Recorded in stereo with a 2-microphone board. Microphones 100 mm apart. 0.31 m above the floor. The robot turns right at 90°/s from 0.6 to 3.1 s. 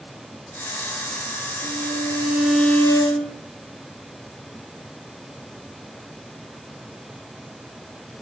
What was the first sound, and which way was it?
A violin, 85° right.